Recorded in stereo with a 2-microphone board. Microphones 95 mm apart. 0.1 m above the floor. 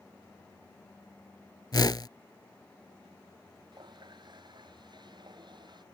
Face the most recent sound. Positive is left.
turn(degrees=-50)  # may be behind; listen again after turning